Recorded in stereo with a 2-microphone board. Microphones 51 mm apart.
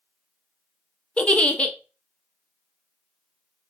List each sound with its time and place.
1.2 s a giggle: 25° left (ahead or behind), 0.6 m